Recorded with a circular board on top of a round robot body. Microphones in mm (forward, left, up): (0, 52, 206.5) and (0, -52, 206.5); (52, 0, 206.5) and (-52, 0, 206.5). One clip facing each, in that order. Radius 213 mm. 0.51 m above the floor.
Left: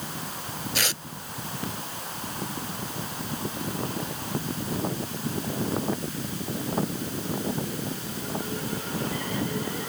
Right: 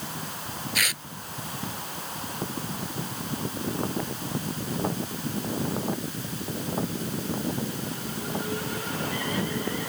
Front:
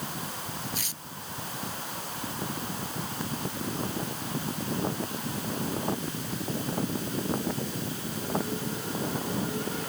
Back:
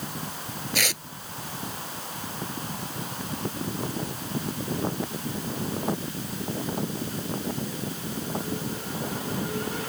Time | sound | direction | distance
0.8 | tearing paper | 155° left | ?